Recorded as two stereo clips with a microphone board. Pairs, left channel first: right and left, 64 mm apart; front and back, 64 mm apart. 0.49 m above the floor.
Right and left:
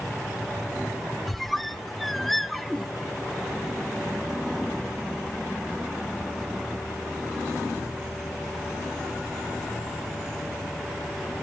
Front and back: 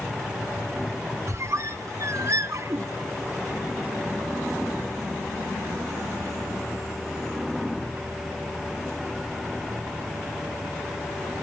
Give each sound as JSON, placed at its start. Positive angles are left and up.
{"t": 1.3, "sound": "a squeak", "azimuth_deg": -175, "distance_m": 0.8}